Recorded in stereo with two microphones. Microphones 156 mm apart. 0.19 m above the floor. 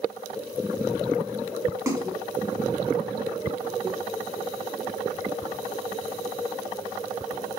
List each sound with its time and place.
1.9 s a splash: 15° right (ahead or behind), 1.9 m